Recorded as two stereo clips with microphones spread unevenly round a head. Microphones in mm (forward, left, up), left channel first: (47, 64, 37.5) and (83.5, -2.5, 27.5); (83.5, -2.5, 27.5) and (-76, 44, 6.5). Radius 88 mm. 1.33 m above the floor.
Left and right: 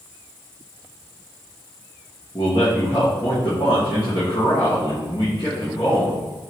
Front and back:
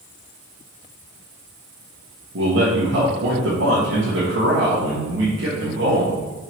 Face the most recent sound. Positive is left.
turn(degrees=-170)